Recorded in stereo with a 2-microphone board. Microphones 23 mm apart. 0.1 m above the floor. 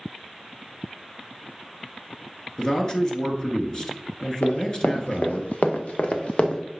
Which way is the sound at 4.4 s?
85° left.